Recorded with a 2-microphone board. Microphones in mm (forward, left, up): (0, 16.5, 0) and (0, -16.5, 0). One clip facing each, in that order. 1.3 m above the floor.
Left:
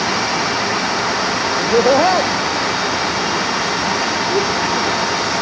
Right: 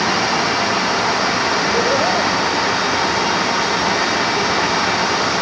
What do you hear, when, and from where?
1.6 s laughter: 65° left (ahead or behind), 1.8 m; by 5.0 s 80° left, 4 m